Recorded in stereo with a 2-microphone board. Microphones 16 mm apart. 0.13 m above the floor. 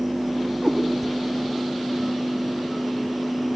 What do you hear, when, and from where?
0.6 s a cat meowing: centre (ahead or behind), 7 m